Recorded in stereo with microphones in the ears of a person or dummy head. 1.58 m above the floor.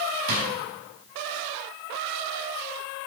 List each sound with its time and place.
0.3 s a drawer: 65° right (ahead or behind), 5.5 m